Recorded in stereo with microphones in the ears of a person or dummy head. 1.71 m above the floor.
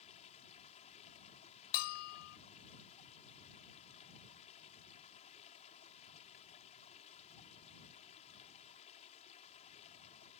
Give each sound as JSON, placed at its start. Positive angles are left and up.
{"t": 0.0, "sound": "running water", "side_deg": 30}
{"t": 1.7, "sound": "a bell", "side_deg": 45}